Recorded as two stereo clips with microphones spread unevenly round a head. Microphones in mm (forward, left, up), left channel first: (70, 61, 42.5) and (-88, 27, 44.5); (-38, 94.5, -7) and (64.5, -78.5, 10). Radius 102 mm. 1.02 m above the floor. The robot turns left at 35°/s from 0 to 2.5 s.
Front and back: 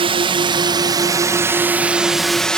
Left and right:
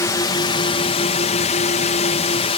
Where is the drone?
Straight behind; by 2.6 s 95° left.